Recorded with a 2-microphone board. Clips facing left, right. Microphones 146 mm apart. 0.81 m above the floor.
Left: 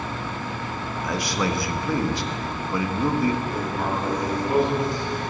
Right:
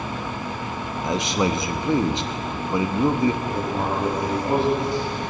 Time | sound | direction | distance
1.0 | a man speaking | 20° right (ahead or behind) | 0.8 m
3.4 | writing | 65° right (ahead or behind) | 5.5 m